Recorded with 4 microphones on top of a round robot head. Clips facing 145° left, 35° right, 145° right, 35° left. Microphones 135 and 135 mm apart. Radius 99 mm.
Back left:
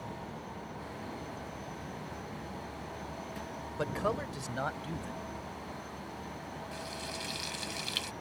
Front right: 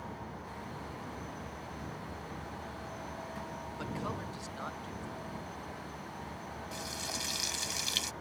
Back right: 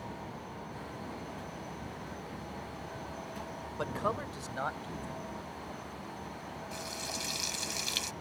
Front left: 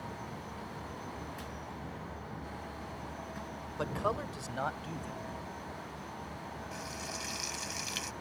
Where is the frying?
80° right.